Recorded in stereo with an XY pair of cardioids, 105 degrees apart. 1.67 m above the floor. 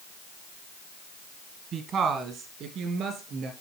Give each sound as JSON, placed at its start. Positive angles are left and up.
{"t": 1.7, "sound": "a woman speaking", "azimuth_deg": -70, "distance_m": 1.3}